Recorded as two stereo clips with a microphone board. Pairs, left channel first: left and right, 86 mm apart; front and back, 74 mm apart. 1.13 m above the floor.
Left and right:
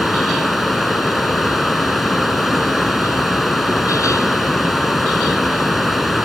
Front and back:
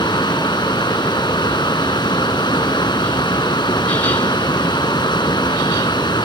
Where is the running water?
Straight ahead.